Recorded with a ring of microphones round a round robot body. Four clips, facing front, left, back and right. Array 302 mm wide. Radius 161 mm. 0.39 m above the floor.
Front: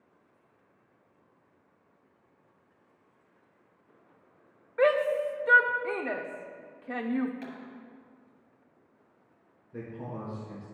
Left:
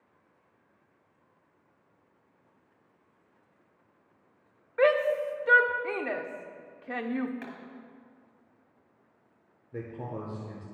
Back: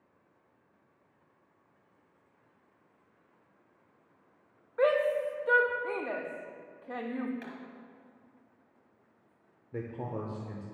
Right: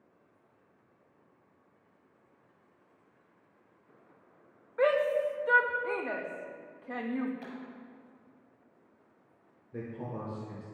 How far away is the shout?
About 0.8 m.